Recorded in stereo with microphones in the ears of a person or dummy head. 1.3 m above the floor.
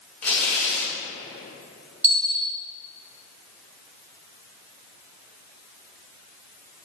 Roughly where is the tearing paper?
Centre.